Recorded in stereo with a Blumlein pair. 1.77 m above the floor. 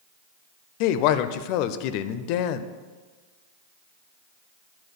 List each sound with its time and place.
0.8 s a woman speaking: 45° left, 0.6 m